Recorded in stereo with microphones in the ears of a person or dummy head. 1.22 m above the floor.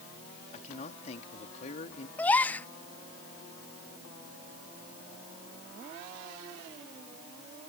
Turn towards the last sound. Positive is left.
turn(degrees=10)  # may be behind; listen again after turning